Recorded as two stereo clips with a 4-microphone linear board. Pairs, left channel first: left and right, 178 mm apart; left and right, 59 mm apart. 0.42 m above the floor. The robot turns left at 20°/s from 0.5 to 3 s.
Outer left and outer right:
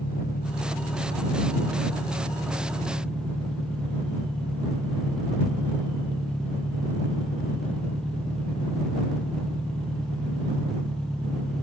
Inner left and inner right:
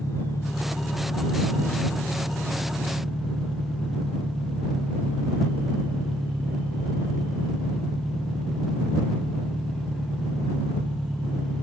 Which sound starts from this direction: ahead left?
An engine running, at 0.0 s.